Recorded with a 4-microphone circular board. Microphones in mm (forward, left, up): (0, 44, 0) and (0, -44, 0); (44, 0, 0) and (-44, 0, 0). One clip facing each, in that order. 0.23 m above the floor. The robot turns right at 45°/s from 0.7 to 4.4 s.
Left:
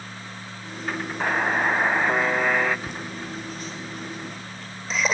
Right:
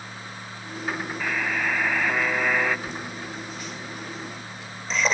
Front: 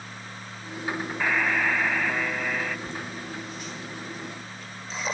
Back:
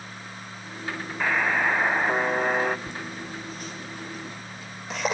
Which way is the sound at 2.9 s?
105° left.